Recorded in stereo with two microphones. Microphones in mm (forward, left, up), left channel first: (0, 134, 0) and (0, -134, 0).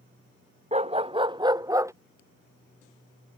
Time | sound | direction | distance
0.7 | a dog barking | 25° right (ahead or behind) | ?